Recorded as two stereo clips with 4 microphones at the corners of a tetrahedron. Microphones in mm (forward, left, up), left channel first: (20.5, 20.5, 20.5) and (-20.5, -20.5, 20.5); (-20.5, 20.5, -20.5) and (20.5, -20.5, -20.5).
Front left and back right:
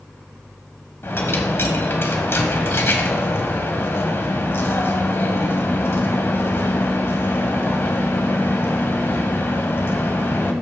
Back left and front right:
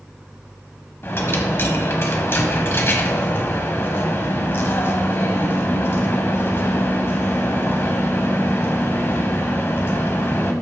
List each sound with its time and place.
1.0 s a dropped coin: 90° left, 1.3 m